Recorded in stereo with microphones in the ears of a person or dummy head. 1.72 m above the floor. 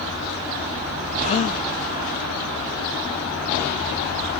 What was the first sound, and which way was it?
A gasp, 30° left (ahead or behind).